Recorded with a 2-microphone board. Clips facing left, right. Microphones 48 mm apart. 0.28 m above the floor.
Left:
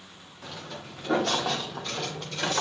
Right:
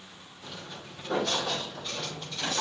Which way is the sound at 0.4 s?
80° left.